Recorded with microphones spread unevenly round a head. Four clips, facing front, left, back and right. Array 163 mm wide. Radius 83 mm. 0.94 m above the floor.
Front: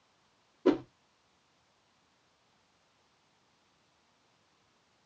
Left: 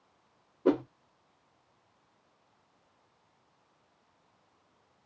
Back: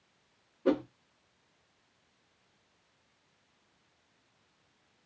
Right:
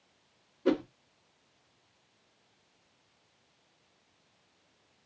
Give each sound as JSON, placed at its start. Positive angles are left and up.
{"t": 0.7, "sound": "a whoosh", "azimuth_deg": 65, "distance_m": 0.9}